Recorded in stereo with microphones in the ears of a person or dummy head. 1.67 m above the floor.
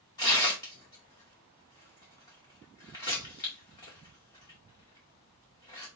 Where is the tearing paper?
20° left (ahead or behind), 0.5 m.